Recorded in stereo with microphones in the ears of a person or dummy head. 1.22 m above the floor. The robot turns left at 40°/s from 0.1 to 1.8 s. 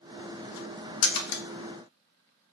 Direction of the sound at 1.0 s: 80° left.